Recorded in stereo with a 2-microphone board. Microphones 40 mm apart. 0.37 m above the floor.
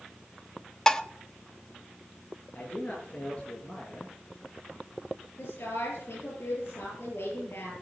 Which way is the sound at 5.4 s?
70° left (ahead or behind).